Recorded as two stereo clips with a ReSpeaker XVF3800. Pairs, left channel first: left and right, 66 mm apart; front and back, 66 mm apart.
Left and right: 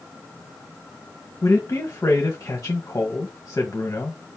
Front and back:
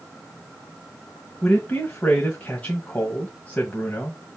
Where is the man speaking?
50° left, 1.7 m.